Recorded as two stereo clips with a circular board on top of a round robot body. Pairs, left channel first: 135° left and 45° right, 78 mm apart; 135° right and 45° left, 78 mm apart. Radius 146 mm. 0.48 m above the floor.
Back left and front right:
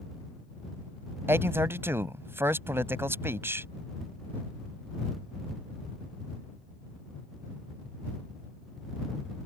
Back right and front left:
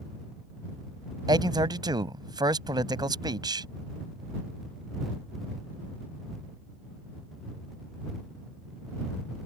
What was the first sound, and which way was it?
A man speaking, 15° left.